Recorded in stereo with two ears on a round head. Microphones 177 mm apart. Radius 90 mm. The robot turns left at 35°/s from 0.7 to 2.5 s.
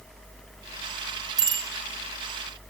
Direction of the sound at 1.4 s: 20° right (ahead or behind).